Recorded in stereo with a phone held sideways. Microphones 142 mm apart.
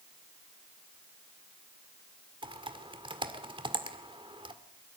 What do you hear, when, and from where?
2.4 s typing on a keyboard: 35° right (ahead or behind), 1.9 m